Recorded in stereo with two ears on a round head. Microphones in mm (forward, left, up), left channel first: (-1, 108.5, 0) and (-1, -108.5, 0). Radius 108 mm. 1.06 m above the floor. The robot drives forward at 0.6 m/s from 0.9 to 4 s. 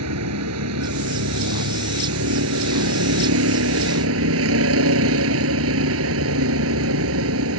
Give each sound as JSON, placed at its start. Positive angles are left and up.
{"t": 0.0, "sound": "a vehicle", "side_deg": -70}